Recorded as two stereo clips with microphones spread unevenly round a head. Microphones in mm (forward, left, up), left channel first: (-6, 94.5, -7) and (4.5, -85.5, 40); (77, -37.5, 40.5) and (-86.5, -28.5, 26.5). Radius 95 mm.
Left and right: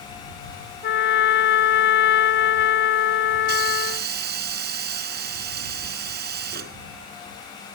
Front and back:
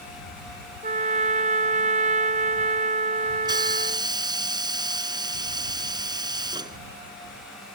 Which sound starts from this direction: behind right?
A hiss, at 3.5 s.